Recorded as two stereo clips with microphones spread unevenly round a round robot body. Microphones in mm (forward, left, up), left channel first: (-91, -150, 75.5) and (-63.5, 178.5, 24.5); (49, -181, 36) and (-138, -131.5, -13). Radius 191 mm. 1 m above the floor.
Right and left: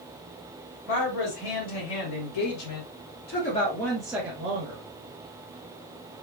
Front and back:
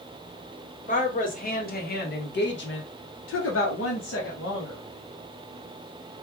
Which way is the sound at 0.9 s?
75° right.